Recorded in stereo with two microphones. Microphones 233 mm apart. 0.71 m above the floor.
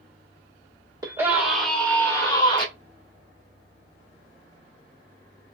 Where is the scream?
15° right (ahead or behind), 1.4 m; by 2.7 s 30° left (ahead or behind), 1.7 m.